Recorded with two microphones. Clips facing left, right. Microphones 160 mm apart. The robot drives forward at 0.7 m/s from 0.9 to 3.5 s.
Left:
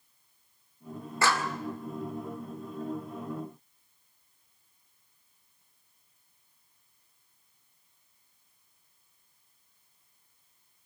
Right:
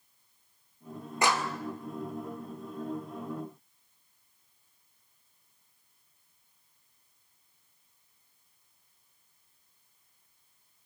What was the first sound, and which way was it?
A clap, 20° right (ahead or behind).